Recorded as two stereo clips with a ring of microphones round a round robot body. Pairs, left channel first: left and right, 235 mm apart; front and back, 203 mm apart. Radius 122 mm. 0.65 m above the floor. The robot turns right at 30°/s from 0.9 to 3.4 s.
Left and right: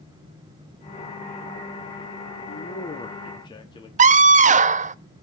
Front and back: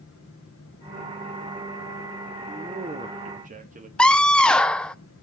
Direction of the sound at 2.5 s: 125° left.